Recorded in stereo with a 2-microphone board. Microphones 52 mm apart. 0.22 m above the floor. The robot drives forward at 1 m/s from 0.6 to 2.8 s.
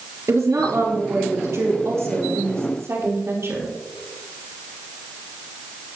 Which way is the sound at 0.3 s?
80° right.